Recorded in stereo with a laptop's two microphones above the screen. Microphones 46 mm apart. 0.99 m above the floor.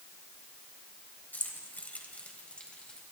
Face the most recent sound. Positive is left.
turn(degrees=20)  # may be behind; listen again after turning